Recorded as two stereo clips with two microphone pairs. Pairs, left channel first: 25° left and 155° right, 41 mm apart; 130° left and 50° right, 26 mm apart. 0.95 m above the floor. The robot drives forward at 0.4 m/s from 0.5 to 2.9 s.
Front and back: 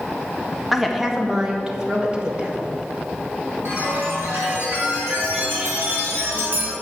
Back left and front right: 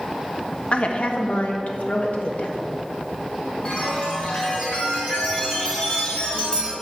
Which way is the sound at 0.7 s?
115° left.